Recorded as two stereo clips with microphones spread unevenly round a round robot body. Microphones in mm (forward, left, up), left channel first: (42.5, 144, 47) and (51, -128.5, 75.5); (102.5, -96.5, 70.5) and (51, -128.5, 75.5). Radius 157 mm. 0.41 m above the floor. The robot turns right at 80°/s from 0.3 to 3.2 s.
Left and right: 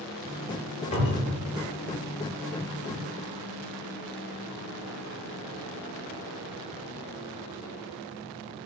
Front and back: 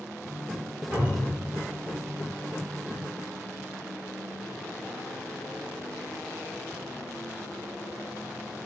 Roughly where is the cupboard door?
Behind left.